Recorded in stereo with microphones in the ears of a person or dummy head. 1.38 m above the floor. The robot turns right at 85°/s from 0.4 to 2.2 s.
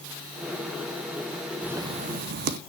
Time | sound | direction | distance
1.6 | writing | 175° right | 1.2 m